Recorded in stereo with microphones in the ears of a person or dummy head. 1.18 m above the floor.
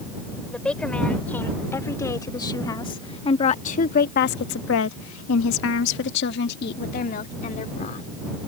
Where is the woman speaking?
10° left (ahead or behind); by 8.1 s 40° left (ahead or behind).